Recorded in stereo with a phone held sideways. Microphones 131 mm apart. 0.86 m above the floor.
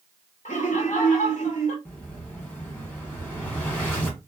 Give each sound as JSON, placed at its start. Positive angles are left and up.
{"t": 0.5, "sound": "laughter", "side_deg": 70, "distance_m": 1.3}
{"t": 1.9, "sound": "an explosion", "side_deg": 10, "distance_m": 1.4}